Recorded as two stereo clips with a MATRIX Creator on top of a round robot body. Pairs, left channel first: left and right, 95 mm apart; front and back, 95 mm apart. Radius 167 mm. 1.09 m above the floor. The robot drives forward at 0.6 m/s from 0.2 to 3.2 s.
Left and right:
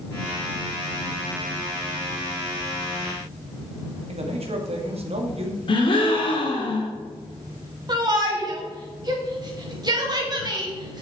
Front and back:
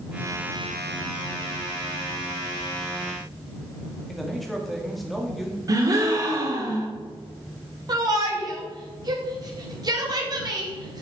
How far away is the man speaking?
About 2 m.